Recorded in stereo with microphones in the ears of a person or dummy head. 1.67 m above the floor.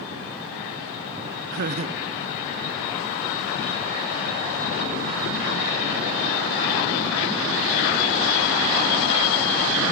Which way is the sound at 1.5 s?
50° right (ahead or behind).